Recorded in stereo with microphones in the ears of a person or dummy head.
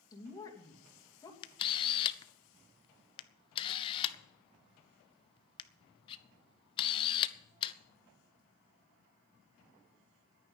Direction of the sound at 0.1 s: 20° left (ahead or behind).